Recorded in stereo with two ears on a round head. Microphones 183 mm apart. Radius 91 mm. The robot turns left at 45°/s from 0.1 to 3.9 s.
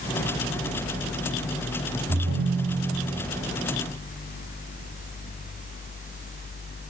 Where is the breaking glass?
No breaking glass in this recording.